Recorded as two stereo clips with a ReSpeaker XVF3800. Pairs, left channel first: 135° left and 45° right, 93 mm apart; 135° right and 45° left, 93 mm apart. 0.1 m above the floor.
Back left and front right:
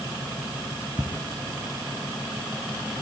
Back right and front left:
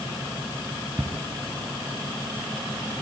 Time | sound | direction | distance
1.0 | ticking | 20° right | 5.5 m